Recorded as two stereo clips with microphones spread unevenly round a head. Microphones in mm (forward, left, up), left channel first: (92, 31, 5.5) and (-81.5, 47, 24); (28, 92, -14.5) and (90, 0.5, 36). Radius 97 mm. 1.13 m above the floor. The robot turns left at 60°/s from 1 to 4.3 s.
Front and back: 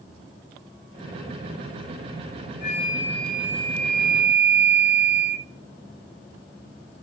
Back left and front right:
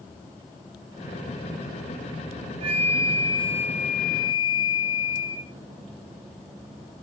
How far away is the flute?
About 0.7 m.